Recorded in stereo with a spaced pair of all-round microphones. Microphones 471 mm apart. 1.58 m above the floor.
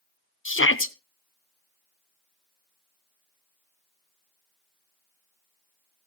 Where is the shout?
25° left (ahead or behind), 0.8 m.